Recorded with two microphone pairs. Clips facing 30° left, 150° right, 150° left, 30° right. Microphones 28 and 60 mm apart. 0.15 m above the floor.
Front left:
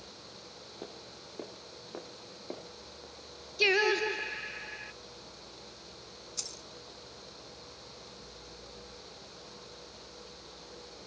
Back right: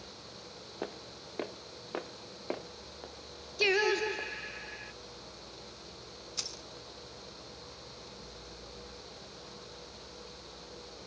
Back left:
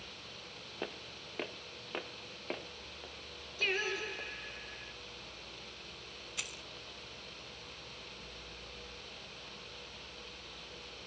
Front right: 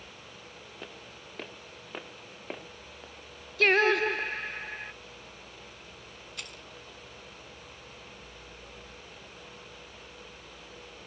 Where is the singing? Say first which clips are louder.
Front left 2 dB, front right 12 dB; 50° right, 0.6 m.